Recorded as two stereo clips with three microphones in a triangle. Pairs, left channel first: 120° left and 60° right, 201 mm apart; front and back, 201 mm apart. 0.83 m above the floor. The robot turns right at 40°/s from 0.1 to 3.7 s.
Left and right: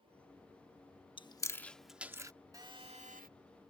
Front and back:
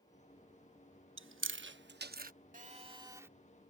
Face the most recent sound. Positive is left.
turn(degrees=-85)